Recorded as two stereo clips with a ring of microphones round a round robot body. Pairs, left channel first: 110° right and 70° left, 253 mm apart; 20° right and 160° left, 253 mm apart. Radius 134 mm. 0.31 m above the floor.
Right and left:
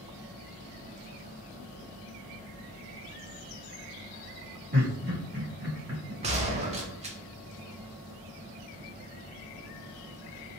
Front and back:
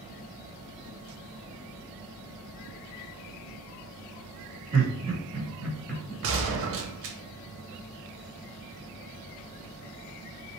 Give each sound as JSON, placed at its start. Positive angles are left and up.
{"t": 4.7, "sound": "laughter", "azimuth_deg": 110, "distance_m": 1.7}
{"t": 6.2, "sound": "a gunshot", "azimuth_deg": 130, "distance_m": 0.7}